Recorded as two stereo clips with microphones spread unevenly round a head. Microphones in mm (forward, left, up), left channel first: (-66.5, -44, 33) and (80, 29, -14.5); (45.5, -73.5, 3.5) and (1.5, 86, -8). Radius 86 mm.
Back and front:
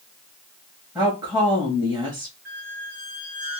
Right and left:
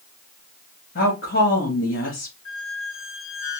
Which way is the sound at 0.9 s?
40° right.